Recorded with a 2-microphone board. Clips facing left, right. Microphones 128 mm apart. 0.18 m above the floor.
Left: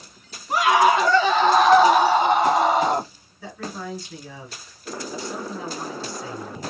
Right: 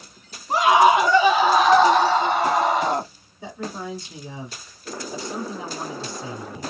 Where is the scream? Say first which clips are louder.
Right 2 dB; 30° right (ahead or behind), 1.3 m; by 3.1 s 40° left (ahead or behind), 1.2 m.